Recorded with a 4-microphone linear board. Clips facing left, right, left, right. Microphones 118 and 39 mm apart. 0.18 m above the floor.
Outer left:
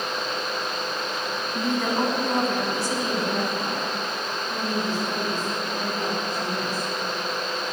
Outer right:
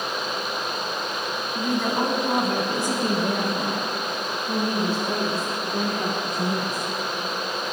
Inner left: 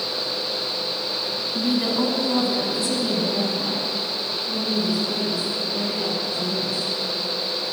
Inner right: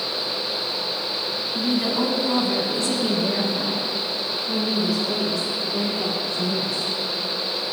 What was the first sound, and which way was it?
A woman speaking, 15° left (ahead or behind).